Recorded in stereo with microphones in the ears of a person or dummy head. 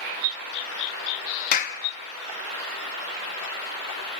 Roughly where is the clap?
Left.